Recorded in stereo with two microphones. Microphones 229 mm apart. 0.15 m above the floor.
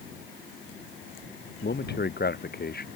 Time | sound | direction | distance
1.6 | a man speaking | 45° left (ahead or behind) | ?